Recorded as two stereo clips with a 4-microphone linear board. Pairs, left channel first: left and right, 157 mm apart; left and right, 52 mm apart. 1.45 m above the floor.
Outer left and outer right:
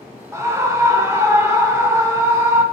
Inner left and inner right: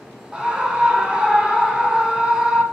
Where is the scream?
20° right (ahead or behind), 1.5 m.